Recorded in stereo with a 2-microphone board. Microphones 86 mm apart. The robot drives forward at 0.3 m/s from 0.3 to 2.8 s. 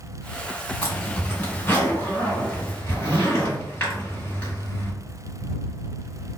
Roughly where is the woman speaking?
No woman speaking in this recording.